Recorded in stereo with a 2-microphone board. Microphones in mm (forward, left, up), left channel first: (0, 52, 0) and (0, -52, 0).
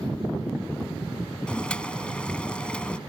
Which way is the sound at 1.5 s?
10° left (ahead or behind).